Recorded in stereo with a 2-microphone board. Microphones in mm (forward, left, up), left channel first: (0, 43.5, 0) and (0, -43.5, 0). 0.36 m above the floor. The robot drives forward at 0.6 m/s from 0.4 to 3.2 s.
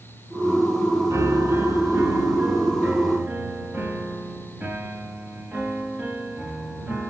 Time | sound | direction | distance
1.1 | a piano | 35° right (ahead or behind) | 1.3 m